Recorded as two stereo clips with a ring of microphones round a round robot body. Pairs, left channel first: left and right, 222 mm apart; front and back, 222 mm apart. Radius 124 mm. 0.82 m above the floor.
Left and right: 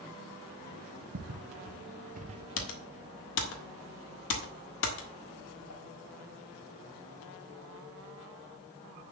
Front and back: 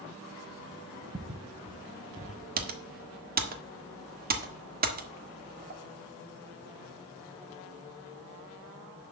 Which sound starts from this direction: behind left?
Typing on a keyboard, at 2.6 s.